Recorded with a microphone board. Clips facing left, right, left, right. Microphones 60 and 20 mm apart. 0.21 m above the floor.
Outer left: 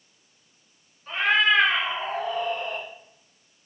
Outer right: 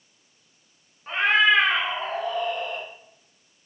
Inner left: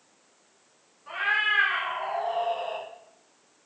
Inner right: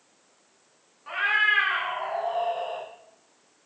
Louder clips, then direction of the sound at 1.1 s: Outer right 2 dB, inner right 2 dB; 30° right (ahead or behind).